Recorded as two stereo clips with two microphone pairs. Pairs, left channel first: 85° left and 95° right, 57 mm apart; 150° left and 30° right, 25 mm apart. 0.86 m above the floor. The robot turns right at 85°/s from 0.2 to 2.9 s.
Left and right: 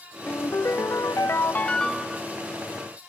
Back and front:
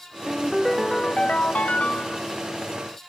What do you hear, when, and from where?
0.3 s a ringtone: 30° left, 0.6 m; by 2.2 s 160° right, 0.6 m